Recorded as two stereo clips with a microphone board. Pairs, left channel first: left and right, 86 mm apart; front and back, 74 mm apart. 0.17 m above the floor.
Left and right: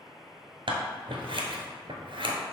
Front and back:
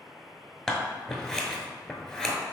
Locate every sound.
0.7 s scissors: 80° right, 0.9 m